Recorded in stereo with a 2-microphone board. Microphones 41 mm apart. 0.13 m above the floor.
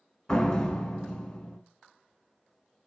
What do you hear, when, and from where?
0.3 s a door slam: 20° left (ahead or behind), 0.8 m